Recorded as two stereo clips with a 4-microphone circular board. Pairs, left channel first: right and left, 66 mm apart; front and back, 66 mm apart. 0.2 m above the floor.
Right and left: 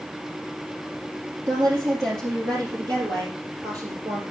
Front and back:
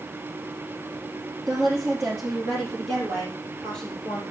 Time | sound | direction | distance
1.5 | a woman speaking | 100° left | 5 m